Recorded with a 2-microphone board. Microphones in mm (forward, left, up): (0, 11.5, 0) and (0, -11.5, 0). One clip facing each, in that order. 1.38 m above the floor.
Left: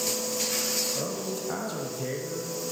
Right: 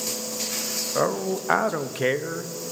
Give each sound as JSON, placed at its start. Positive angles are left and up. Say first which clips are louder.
{"t": 0.9, "sound": "a man speaking", "louder": "right 7 dB", "side_deg": -60, "distance_m": 0.7}